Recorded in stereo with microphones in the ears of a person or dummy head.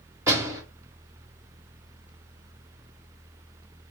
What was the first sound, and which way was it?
A door slam, 20° right (ahead or behind).